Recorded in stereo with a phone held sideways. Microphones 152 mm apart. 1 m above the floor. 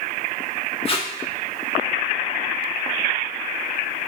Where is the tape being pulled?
35° left (ahead or behind), 1.6 m.